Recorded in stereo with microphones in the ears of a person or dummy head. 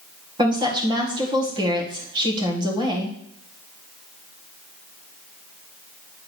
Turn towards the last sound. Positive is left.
turn(degrees=-25)  # may be behind; listen again after turning